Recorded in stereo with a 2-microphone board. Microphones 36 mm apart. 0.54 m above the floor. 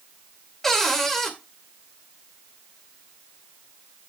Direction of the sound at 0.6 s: 5° left (ahead or behind).